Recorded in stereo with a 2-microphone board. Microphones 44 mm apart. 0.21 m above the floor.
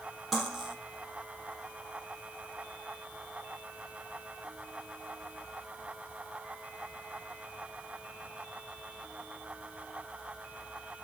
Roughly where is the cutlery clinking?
Centre.